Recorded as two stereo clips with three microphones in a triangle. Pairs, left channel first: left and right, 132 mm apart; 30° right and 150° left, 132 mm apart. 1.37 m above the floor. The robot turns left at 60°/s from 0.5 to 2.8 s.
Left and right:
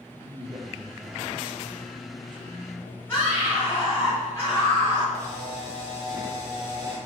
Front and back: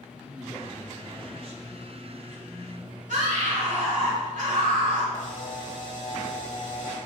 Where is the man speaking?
110° right, 1.3 m; by 3.0 s 110° left, 1.3 m.